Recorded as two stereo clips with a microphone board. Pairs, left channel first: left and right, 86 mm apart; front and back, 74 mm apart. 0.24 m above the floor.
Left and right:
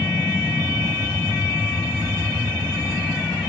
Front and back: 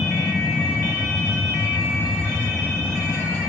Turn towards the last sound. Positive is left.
turn(degrees=-35)